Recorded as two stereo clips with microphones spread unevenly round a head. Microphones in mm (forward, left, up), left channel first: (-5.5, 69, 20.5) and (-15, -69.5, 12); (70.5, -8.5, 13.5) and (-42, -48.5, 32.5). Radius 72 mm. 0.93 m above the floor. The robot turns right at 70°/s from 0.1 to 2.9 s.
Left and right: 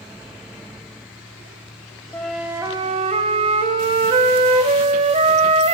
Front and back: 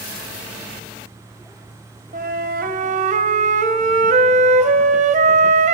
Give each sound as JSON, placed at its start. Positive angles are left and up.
{"t": 2.1, "sound": "a flute", "azimuth_deg": 160, "distance_m": 0.7}